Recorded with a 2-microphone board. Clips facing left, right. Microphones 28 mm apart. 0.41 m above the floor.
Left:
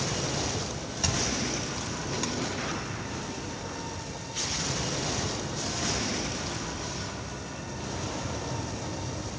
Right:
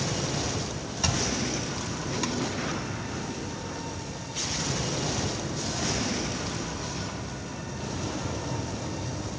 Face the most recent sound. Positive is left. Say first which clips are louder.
# right 1 dB
turn(degrees=-10)  # may be behind; listen again after turning